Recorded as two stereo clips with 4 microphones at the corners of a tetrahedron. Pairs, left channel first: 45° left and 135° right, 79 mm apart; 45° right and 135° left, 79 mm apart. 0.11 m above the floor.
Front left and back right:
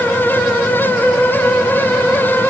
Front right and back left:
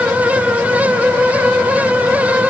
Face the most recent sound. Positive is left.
No sound to turn to.